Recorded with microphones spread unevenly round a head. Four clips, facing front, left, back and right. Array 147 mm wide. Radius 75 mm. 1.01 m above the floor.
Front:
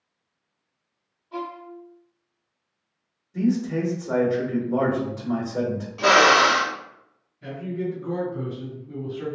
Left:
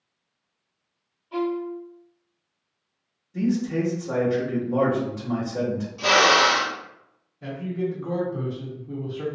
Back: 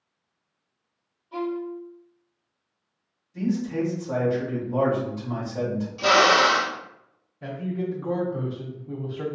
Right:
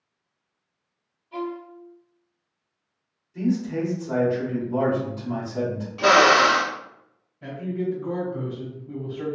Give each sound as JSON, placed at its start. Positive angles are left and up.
{"t": 1.3, "sound": "a violin", "azimuth_deg": 100, "distance_m": 0.6}
{"t": 3.3, "sound": "a man speaking", "azimuth_deg": 40, "distance_m": 2.0}
{"t": 6.0, "sound": "a drill", "azimuth_deg": -65, "distance_m": 0.5}
{"t": 7.4, "sound": "a man speaking", "azimuth_deg": 165, "distance_m": 1.2}